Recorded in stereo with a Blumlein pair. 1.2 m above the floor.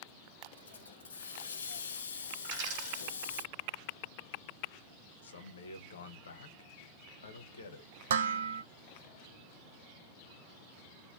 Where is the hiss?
65° left, 0.6 m.